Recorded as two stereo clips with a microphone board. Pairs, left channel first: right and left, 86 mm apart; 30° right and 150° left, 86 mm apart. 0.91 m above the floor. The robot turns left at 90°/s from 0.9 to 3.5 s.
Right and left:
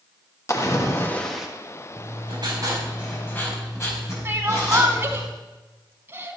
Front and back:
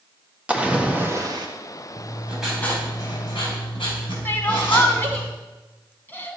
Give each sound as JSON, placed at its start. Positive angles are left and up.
{"t": 0.5, "sound": "a splash", "azimuth_deg": -135, "distance_m": 1.5}
{"t": 2.0, "sound": "writing", "azimuth_deg": 105, "distance_m": 5.0}
{"t": 4.2, "sound": "crying", "azimuth_deg": 35, "distance_m": 1.4}